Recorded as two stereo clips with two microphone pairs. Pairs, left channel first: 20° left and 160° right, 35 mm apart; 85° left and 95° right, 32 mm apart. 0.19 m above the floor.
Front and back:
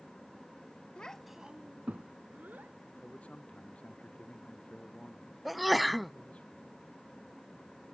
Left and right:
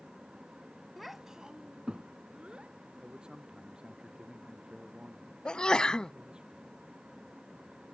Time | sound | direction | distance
1.0 | a child speaking | 5° right | ?
3.0 | a man speaking | 30° right | ?
5.5 | a sneeze | 110° left | ?